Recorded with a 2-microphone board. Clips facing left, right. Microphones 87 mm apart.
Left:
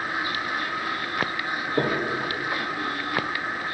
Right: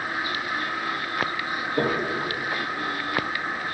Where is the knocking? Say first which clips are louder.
Even; 20° left (ahead or behind), 1.7 m.